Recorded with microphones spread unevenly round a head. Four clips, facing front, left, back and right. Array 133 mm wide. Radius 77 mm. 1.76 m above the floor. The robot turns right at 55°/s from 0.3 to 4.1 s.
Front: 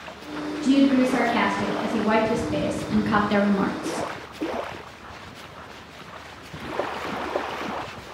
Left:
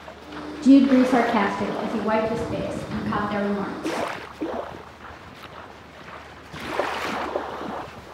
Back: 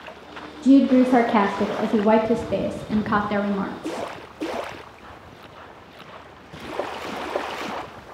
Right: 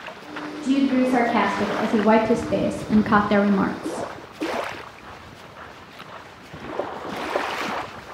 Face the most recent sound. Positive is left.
turn(degrees=-35)